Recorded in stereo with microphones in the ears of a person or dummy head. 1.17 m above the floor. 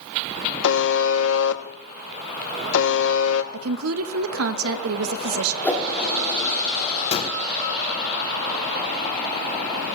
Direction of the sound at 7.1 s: 30° left (ahead or behind).